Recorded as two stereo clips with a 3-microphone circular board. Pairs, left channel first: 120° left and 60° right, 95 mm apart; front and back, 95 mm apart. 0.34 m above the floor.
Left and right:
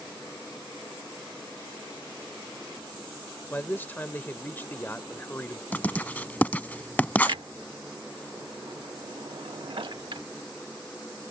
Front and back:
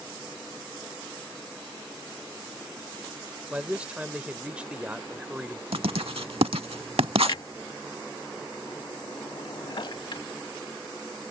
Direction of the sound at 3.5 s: 130° left.